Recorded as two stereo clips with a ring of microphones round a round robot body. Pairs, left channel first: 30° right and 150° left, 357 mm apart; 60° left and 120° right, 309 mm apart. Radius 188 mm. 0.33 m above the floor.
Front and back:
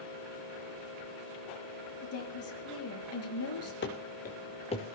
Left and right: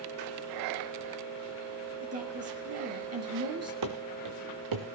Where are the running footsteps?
90° right, 2 m; by 5.0 s 105° right, 3 m.